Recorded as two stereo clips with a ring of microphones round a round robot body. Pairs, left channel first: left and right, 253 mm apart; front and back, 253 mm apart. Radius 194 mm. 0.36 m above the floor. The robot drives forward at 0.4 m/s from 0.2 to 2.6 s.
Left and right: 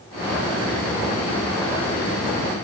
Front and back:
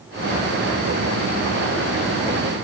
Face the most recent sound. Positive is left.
No sound to turn to.